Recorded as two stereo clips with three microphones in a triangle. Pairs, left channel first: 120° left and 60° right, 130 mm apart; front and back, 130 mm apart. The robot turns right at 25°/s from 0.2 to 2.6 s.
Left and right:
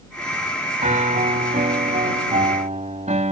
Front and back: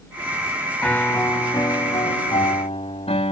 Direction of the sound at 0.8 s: 80° right.